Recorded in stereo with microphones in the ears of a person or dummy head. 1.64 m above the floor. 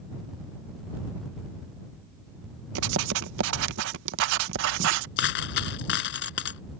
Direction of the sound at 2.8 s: 75° right (ahead or behind).